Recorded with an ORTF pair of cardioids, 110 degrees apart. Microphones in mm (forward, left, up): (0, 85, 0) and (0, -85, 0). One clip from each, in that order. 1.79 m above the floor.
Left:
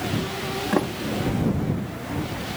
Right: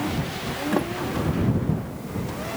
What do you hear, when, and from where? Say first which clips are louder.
0.7 s a sliding door: left 1 dB; 10° left